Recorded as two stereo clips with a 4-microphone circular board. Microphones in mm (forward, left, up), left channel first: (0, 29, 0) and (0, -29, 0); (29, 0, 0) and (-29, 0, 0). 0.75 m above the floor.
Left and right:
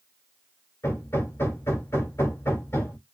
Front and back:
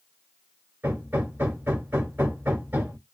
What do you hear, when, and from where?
0.8 s hammering: 130° left, 1.6 m